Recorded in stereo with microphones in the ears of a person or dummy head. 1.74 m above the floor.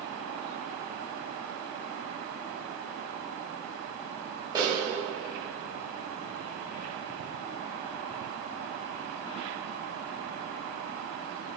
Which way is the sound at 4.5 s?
20° right (ahead or behind).